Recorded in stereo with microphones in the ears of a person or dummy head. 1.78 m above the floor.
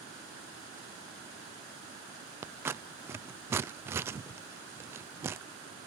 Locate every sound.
2.4 s scissors: 10° right (ahead or behind)